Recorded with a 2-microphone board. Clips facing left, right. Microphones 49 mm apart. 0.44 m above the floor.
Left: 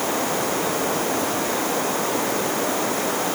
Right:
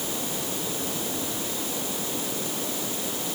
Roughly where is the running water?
Left.